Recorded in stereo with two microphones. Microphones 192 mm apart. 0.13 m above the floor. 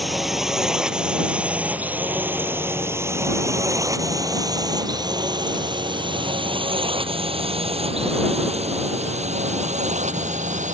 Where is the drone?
Centre (ahead or behind); by 10.7 s 40° right (ahead or behind).